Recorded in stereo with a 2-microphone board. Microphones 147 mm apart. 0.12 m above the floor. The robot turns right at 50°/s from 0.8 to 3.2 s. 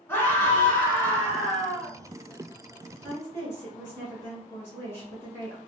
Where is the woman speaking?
10° left (ahead or behind), 1.4 m; by 5.6 s 15° left (ahead or behind), 1.4 m.